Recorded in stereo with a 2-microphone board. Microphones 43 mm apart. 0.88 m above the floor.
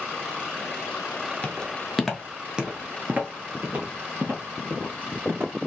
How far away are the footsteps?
About 0.9 m.